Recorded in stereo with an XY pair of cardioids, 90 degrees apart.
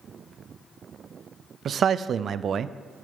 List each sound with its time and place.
1.6 s a man speaking: 60° right, 0.6 m